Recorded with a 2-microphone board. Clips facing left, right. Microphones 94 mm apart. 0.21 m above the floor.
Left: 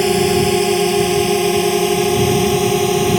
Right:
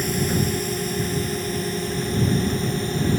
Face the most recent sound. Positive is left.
turn(degrees=75)  # may be behind; listen again after turning